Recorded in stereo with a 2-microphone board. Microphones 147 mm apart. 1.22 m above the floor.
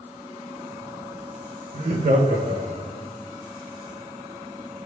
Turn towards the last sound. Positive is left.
turn(degrees=-65)  # may be behind; listen again after turning